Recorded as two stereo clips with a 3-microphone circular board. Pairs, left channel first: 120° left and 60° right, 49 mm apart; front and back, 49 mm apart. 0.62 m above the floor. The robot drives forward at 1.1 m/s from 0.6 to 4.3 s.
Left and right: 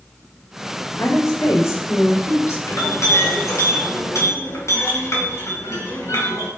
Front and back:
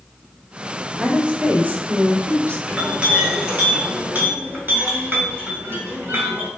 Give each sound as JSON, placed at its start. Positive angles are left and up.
{"t": 1.0, "sound": "a woman speaking", "azimuth_deg": 105, "distance_m": 1.7}
{"t": 2.7, "sound": "a clink", "azimuth_deg": 115, "distance_m": 3.5}